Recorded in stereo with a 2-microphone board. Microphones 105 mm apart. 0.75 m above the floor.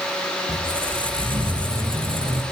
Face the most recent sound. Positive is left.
turn(degrees=-55)  # may be behind; listen again after turning